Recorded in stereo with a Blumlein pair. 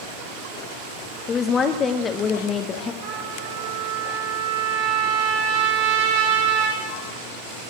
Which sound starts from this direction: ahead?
A woman speaking, at 1.3 s.